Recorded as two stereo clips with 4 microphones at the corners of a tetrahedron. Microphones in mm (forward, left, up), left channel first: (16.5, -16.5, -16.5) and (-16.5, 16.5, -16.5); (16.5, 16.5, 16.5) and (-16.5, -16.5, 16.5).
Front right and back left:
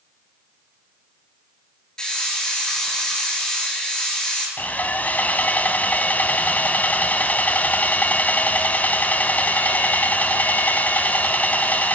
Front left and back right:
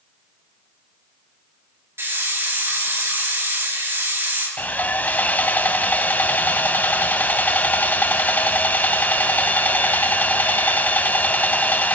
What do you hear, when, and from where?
2.0 s a hiss: 115° right, 4 m
4.6 s sawing: straight ahead, 0.6 m